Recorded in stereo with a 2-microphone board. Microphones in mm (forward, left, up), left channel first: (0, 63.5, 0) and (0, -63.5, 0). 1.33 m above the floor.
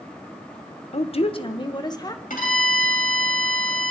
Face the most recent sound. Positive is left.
turn(degrees=85)